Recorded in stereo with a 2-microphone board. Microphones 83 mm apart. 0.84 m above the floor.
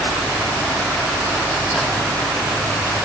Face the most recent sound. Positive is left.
No sound to turn to.